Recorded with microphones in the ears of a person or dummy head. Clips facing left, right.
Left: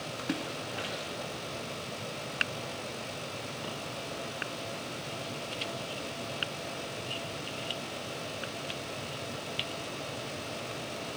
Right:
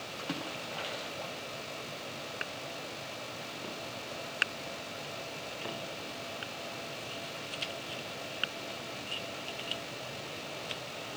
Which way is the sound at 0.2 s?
25° left (ahead or behind).